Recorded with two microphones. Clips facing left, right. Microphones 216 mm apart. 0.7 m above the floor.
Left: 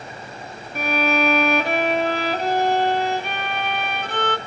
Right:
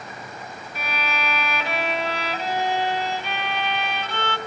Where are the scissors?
No scissors in this recording.